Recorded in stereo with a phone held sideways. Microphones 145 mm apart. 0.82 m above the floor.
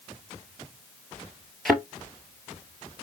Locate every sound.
1.6 s a thud: centre (ahead or behind), 1.4 m